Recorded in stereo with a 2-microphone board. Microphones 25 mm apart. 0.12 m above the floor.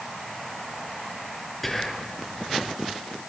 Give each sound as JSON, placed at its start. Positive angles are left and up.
{"t": 1.6, "sound": "whispering", "side_deg": 10, "distance_m": 2.0}